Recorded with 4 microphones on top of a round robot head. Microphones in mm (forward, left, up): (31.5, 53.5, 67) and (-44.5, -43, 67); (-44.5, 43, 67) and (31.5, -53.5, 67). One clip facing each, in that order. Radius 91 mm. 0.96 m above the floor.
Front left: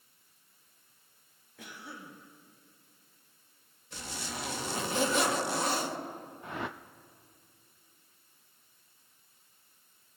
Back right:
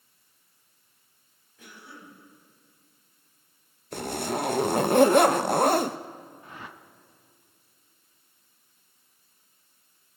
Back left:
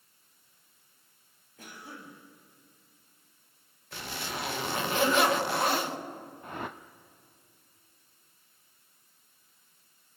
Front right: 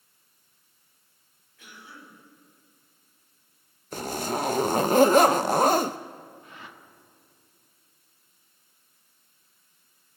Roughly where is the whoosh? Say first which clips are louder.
Front left 10 dB, back left 8 dB; left.